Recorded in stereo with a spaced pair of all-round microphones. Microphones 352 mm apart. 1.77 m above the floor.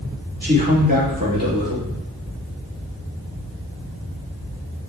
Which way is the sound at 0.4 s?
30° right (ahead or behind).